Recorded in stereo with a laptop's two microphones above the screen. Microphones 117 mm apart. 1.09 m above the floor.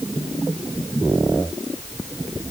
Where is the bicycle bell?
I don't hear a bicycle bell.